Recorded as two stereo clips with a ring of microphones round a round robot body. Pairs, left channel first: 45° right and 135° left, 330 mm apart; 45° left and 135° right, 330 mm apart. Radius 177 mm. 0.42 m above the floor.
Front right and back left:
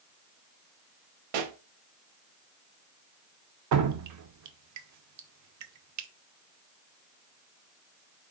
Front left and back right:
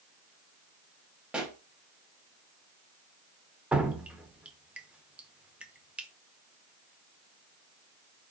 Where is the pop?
140° left, 0.7 m.